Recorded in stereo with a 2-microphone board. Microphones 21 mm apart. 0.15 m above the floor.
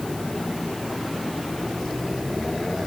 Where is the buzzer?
I don't hear a buzzer.